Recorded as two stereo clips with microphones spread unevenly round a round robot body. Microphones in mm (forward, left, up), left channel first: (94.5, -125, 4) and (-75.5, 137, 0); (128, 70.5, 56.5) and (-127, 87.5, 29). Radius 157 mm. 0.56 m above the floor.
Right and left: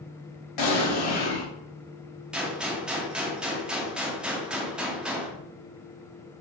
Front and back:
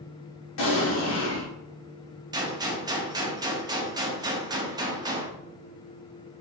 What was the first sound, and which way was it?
An explosion, 55° right.